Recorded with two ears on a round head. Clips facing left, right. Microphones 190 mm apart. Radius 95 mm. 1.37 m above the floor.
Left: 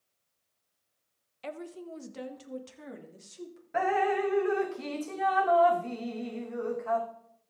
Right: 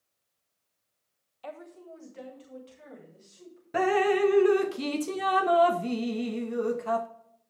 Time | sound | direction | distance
1.4 | a woman speaking | 30° left (ahead or behind) | 1.1 m
3.7 | dripping | 45° right (ahead or behind) | 0.9 m